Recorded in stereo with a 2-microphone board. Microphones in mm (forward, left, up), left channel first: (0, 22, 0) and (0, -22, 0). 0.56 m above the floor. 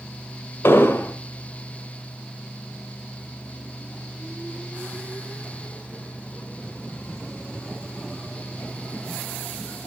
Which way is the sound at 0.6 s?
60° left (ahead or behind).